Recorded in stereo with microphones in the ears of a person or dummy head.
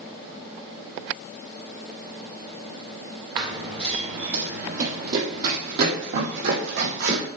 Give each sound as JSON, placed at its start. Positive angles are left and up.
{"t": 3.4, "sound": "running footsteps", "side_deg": -30, "distance_m": 2.0}